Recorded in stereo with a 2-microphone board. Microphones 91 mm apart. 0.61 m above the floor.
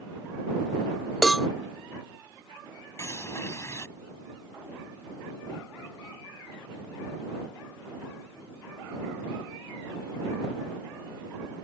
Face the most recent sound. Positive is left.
turn(degrees=35)  # may be behind; listen again after turning